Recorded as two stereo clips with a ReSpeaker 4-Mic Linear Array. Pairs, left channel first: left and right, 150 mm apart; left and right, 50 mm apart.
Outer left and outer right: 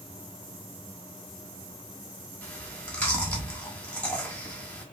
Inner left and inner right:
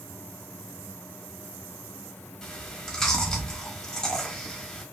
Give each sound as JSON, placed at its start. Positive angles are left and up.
{"t": 2.4, "sound": "chewing", "side_deg": 10, "distance_m": 1.5}